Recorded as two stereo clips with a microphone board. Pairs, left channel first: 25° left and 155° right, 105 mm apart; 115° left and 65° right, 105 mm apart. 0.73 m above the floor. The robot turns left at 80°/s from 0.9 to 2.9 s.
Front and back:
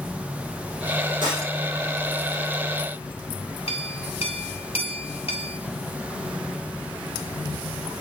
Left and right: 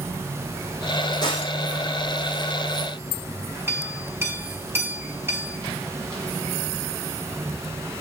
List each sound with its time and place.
1.2 s breaking glass: 160° left, 7.5 m; by 1.5 s 135° left, 7.5 m
3.7 s a clink: straight ahead, 5.5 m